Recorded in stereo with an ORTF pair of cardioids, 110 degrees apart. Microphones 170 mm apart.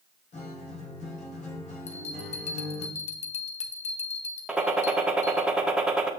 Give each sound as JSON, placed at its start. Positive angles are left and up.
{"t": 0.3, "sound": "a guitar", "azimuth_deg": 45, "distance_m": 3.0}
{"t": 1.9, "sound": "a bell", "azimuth_deg": 40, "distance_m": 1.4}
{"t": 4.5, "sound": "a gunshot", "azimuth_deg": -5, "distance_m": 1.6}